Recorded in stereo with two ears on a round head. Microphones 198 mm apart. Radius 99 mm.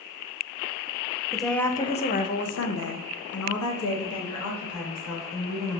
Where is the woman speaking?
5° right (ahead or behind), 0.7 m; by 5.8 s 60° left (ahead or behind), 2 m.